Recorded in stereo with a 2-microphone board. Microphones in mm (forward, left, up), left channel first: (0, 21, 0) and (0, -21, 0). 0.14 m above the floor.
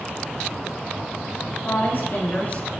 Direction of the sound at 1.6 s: 60° left (ahead or behind).